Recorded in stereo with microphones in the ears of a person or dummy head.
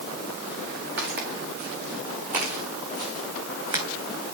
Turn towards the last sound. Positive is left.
turn(degrees=-25)  # may be behind; listen again after turning